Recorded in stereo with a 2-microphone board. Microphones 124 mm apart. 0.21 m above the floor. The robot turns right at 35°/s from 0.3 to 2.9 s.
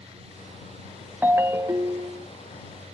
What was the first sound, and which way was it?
A ringtone, 150° right.